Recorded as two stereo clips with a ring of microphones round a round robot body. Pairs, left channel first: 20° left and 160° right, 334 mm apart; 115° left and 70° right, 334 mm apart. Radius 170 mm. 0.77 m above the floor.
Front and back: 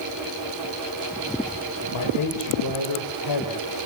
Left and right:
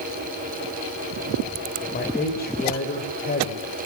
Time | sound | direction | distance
1.9 | a man speaking | 50° left | 3.5 m